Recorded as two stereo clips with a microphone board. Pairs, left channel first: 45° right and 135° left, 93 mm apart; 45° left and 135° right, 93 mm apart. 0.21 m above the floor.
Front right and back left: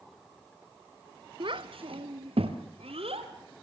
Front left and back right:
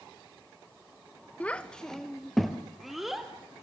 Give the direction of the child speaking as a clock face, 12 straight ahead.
8 o'clock.